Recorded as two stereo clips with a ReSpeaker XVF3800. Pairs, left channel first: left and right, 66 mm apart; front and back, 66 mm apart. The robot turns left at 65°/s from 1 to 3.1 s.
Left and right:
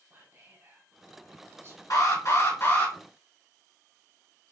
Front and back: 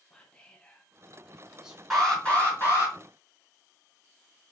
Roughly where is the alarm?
Left.